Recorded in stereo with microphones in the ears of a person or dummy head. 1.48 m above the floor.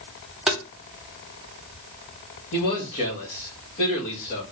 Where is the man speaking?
45° left (ahead or behind), 1.8 m.